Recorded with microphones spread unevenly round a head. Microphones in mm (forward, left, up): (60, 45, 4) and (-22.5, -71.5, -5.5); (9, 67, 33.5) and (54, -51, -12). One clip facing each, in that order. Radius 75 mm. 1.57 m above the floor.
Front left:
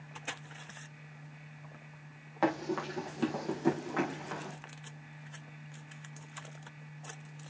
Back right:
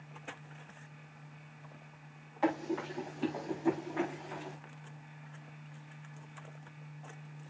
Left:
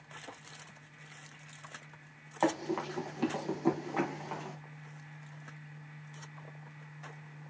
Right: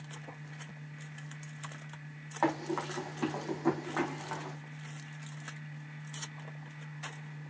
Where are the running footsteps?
45° left, 4.5 m.